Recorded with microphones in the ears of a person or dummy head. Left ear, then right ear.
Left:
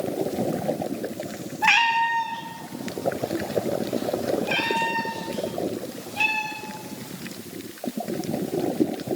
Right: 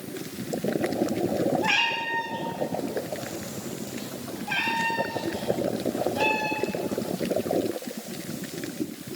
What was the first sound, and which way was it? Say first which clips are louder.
A cat meowing: left 11 dB; 60° left (ahead or behind).